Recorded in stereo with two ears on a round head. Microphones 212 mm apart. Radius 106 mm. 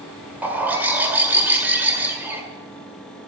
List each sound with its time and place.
0.4 s a bird: 10° right (ahead or behind), 1.9 m